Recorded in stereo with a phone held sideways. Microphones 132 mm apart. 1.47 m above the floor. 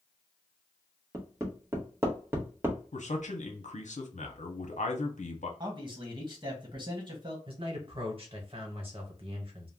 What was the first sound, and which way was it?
Hammering, 20° right (ahead or behind).